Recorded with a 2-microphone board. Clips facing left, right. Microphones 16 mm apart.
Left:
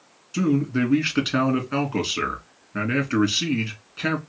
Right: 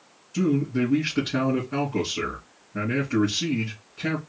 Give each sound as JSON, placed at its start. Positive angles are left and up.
{"t": 0.3, "sound": "a man speaking", "side_deg": 70, "distance_m": 2.0}